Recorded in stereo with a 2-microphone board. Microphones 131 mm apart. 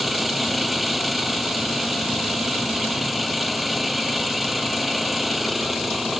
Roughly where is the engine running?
Centre.